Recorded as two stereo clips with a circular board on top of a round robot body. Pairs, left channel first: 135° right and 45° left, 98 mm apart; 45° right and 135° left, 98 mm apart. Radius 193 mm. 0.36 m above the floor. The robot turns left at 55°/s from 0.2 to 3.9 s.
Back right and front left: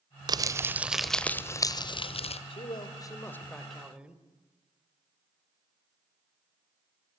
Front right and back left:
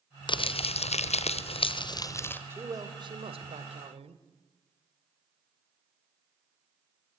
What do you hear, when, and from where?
0.3 s crumpling: 5° right, 1.0 m; by 2.4 s 120° right, 1.0 m
2.5 s a man speaking: 160° right, 2 m; by 4.2 s 125° left, 2 m